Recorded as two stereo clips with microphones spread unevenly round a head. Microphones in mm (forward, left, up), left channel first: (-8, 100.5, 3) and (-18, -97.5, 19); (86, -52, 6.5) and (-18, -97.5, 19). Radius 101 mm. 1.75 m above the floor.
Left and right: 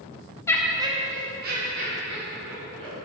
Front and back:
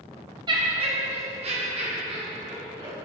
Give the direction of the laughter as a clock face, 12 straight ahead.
7 o'clock.